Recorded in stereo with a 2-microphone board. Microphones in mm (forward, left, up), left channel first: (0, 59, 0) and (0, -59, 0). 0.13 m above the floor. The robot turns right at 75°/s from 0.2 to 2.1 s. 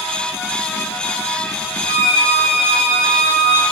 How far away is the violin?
About 0.8 m.